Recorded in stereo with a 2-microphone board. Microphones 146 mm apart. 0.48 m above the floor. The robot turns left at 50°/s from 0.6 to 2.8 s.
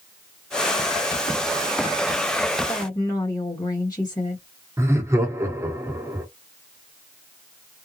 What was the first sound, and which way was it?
A woman speaking, 25° left (ahead or behind).